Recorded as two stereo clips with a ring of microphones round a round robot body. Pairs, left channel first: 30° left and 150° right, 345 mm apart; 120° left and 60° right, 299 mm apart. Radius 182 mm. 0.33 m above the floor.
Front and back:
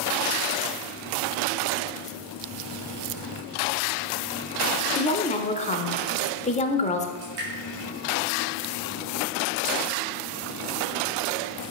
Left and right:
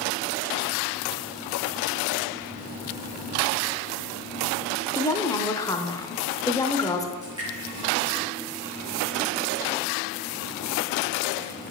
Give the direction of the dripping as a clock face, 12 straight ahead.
5 o'clock.